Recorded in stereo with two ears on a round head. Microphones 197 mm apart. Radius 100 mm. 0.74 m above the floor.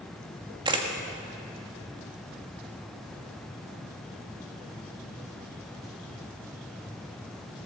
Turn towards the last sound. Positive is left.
turn(degrees=-20)  # may be behind; listen again after turning